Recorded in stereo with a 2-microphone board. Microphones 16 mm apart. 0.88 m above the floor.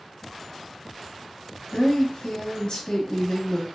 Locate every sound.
1.7 s a woman speaking: 50° left (ahead or behind), 1.1 m